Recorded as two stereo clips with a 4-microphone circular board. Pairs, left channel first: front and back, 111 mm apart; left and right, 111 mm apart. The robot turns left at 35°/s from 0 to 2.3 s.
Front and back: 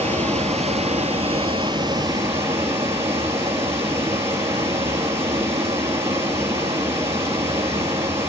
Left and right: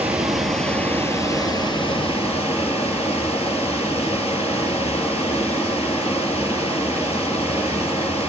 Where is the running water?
165° right, 3 m; by 8.3 s 115° left, 3 m.